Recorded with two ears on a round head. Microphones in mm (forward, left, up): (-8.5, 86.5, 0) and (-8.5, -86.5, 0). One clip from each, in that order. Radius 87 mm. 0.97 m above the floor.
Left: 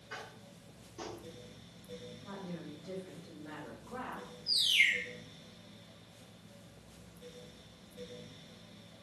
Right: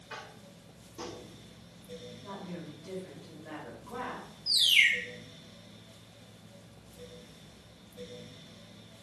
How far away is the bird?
About 1.6 m.